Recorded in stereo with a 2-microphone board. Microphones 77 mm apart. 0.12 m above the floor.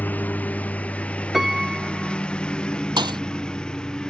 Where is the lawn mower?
25° left (ahead or behind); by 4.1 s 10° left (ahead or behind).